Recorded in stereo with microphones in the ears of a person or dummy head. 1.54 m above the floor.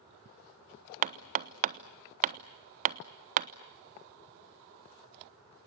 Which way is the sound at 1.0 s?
40° right (ahead or behind).